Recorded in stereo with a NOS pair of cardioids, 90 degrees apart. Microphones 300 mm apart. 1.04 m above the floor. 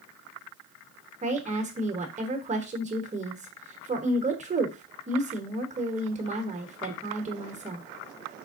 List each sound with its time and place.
1.2 s a woman speaking: 25° right, 1.0 m